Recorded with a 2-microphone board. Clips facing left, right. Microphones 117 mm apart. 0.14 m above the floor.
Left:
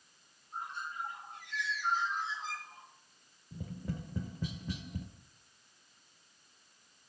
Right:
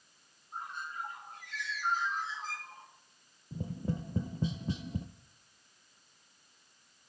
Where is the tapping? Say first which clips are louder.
Right 5 dB; 30° right (ahead or behind), 0.6 m.